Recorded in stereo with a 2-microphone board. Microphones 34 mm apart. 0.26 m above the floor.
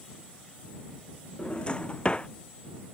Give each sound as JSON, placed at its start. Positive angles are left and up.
{"t": 1.4, "sound": "a drawer", "side_deg": 30}